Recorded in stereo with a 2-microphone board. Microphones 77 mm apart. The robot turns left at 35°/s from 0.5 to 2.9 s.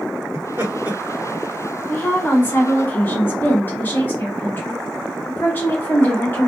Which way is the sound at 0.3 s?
30° right (ahead or behind).